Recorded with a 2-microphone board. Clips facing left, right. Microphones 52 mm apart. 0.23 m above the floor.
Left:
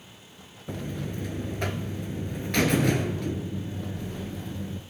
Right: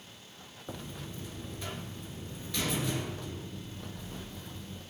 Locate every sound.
0.7 s a buzzer: 65° left (ahead or behind), 0.7 m